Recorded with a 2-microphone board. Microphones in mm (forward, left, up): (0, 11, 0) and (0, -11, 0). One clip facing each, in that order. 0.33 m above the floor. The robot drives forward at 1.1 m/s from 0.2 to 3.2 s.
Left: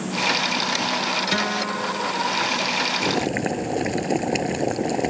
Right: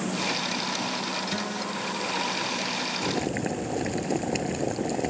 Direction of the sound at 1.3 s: 45° left (ahead or behind).